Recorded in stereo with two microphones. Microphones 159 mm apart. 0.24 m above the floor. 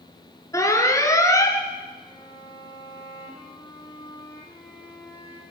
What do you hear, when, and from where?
0.5 s an alarm: 20° left (ahead or behind), 4 m
2.1 s a violin: 15° left (ahead or behind), 6 m